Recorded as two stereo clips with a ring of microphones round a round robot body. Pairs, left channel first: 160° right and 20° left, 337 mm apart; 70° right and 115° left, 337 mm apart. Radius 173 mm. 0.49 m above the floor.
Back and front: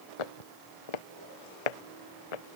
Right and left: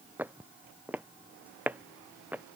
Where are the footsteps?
160° right.